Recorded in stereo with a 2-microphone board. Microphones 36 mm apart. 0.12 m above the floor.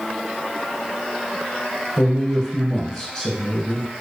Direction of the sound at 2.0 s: 5° left (ahead or behind).